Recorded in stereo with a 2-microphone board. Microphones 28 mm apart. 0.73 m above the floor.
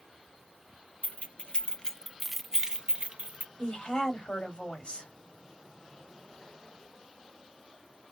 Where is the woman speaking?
40° left (ahead or behind), 1.9 m.